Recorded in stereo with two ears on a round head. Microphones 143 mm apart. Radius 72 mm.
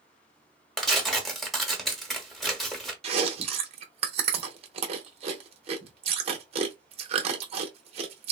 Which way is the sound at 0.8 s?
Centre (ahead or behind).